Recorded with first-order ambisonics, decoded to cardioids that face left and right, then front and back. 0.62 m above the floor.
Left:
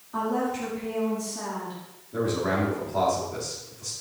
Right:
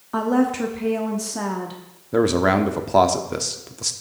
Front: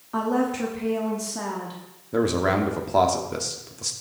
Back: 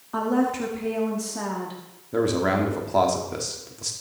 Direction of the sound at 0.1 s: 90° right.